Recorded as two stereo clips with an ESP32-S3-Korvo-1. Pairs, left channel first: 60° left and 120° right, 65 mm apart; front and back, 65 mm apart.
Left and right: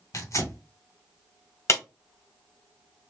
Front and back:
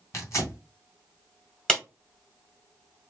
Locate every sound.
0.1 s tearing paper: 40° left, 2.5 m
1.7 s a clap: 75° left, 1.6 m